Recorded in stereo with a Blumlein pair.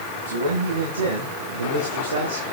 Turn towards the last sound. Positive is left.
turn(degrees=-75)